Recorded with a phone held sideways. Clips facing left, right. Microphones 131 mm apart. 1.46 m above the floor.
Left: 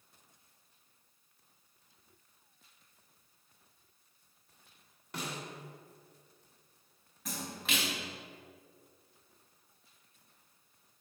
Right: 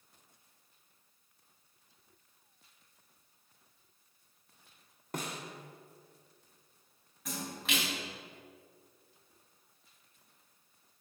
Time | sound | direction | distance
5.1 | a snare drum | 45° right (ahead or behind) | 1.3 m
7.2 | a splash | centre (ahead or behind) | 3 m